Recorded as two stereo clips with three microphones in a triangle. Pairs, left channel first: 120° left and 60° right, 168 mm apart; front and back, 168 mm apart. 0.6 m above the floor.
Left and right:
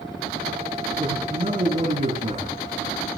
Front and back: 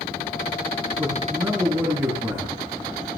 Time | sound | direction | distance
1.0 | a man speaking | 105° right | 9.5 m